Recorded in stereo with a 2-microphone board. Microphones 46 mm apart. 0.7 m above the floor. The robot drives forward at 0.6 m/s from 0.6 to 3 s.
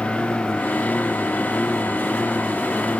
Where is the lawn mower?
35° left (ahead or behind).